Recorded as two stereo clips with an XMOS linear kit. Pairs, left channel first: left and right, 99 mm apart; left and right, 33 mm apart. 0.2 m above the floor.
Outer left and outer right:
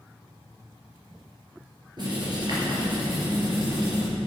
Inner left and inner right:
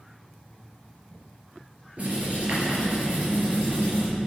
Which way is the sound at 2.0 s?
50° right (ahead or behind).